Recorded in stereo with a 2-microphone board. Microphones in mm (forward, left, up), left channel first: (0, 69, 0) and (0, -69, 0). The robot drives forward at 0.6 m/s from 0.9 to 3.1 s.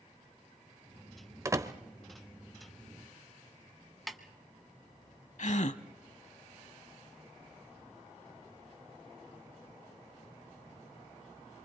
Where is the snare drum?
Centre (ahead or behind), 1.1 m.